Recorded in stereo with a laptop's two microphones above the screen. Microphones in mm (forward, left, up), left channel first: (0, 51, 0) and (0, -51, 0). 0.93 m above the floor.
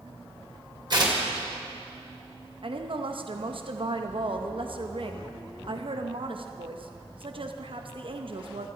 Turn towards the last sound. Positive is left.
turn(degrees=-55)  # may be behind; listen again after turning